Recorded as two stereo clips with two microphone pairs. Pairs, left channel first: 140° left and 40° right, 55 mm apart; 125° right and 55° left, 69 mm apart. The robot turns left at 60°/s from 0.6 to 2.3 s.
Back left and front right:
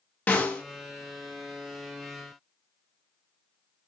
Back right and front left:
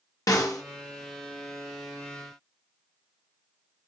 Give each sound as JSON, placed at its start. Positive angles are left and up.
{"t": 0.3, "sound": "a snare drum", "azimuth_deg": -160, "distance_m": 0.6}